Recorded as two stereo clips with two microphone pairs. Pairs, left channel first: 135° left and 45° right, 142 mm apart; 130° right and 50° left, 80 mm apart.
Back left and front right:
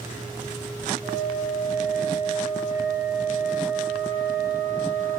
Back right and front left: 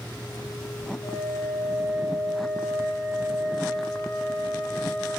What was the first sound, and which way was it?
A flute, 45° right.